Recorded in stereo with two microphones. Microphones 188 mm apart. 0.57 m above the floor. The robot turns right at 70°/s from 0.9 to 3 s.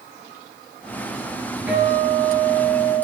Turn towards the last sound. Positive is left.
turn(degrees=85)